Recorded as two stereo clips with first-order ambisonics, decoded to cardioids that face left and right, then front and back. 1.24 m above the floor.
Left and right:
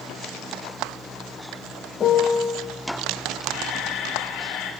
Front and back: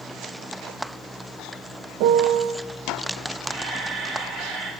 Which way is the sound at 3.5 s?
65° left.